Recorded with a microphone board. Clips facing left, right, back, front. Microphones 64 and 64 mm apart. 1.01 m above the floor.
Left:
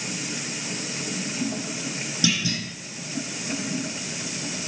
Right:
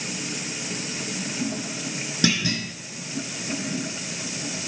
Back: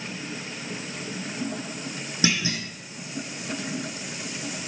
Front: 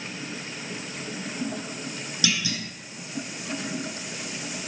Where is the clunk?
125° right, 1.1 m.